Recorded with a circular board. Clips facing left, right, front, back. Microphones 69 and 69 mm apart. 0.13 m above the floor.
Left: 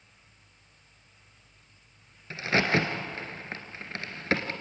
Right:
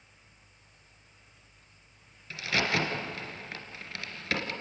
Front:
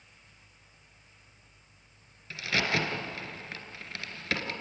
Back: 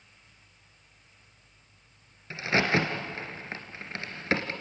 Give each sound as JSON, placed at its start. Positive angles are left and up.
{"t": 2.3, "sound": "a crack", "azimuth_deg": 135, "distance_m": 2.0}